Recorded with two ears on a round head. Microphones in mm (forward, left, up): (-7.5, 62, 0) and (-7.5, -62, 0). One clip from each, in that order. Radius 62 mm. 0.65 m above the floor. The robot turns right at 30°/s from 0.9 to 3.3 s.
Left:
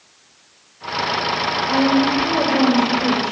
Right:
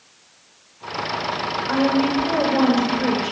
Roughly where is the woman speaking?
Behind.